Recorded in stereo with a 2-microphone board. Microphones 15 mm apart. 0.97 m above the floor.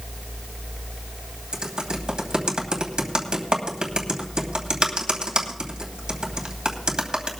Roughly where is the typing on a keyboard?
Right.